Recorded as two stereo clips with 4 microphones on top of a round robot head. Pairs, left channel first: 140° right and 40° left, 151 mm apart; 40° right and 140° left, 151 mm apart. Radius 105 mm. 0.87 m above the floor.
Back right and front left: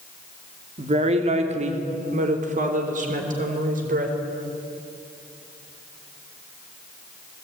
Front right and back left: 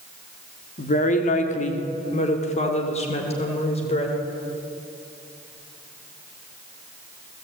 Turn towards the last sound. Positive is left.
turn(degrees=10)